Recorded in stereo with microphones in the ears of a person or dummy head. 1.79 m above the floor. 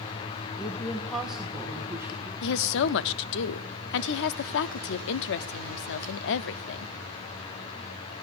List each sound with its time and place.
0.6 s a woman speaking: 15° left (ahead or behind), 1.1 m; by 2.3 s 15° right (ahead or behind), 2 m
2.4 s a woman speaking: 65° left (ahead or behind), 0.7 m